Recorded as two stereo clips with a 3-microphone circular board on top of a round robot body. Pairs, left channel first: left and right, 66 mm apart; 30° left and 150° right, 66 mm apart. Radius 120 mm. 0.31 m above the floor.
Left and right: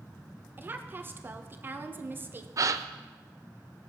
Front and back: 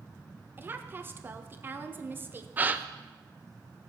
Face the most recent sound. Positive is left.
turn(degrees=-90)